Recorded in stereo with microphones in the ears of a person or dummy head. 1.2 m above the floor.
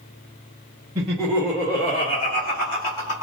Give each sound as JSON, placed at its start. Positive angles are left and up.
{"t": 0.9, "sound": "laughter", "side_deg": -5, "distance_m": 1.2}